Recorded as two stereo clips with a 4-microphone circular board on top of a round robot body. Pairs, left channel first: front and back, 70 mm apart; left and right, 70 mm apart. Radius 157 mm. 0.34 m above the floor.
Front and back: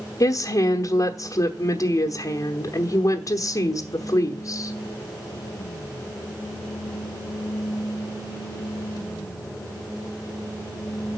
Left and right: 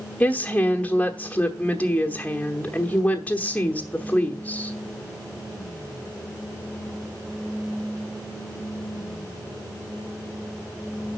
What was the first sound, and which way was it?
A woman speaking, 25° left.